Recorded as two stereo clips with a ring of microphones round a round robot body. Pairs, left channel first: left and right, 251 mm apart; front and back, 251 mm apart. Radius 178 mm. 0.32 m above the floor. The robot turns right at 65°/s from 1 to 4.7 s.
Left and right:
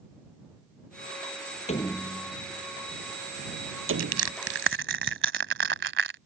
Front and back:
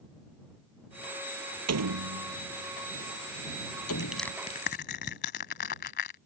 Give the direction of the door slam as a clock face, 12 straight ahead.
7 o'clock.